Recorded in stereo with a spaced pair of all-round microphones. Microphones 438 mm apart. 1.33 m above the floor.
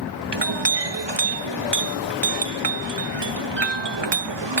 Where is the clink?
70° right (ahead or behind).